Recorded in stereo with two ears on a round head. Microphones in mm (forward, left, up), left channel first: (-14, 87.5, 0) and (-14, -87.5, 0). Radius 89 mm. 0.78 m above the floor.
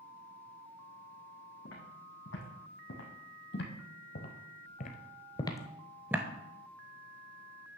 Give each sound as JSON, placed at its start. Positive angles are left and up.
{"t": 1.6, "sound": "footsteps", "side_deg": 75, "distance_m": 3.0}